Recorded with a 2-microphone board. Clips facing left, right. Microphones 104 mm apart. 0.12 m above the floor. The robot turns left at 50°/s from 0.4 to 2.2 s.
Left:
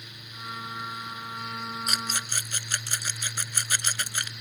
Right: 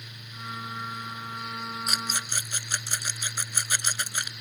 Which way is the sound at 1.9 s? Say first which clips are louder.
Even; 5° right (ahead or behind).